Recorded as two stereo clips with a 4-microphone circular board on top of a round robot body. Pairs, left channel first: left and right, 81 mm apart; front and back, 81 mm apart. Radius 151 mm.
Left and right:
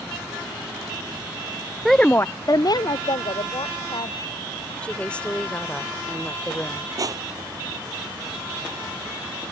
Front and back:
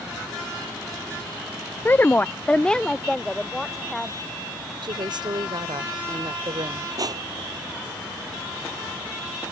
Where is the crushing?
135° right.